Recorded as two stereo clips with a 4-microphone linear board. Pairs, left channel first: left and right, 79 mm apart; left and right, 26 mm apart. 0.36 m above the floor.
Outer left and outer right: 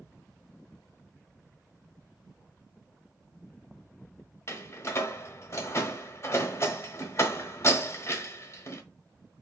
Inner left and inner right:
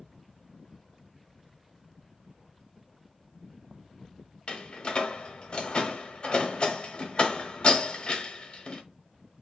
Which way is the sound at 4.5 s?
40° left (ahead or behind).